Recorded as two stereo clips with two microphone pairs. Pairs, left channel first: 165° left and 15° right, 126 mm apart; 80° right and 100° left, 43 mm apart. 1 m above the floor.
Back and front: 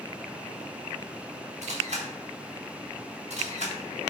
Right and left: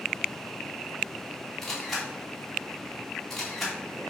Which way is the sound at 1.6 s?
Straight ahead.